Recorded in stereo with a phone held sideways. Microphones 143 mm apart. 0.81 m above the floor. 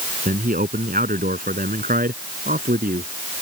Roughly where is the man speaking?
Right.